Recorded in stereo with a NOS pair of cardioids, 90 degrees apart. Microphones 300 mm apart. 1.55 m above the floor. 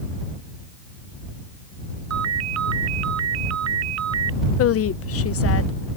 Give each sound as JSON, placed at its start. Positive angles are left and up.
{"t": 2.1, "sound": "a ringtone", "azimuth_deg": -60}
{"t": 4.6, "sound": "a woman speaking", "azimuth_deg": 50}